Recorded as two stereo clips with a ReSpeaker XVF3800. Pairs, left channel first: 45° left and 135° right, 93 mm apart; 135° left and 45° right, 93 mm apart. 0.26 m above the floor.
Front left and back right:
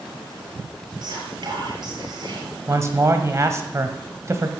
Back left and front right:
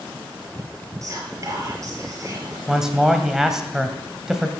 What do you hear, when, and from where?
1.0 s whispering: 95° right, 6 m
2.7 s a man speaking: 125° right, 1.7 m